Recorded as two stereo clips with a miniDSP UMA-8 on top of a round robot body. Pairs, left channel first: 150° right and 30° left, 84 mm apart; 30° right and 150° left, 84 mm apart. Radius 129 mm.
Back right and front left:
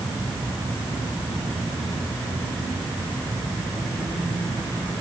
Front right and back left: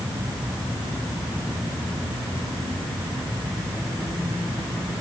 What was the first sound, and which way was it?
Only background noise.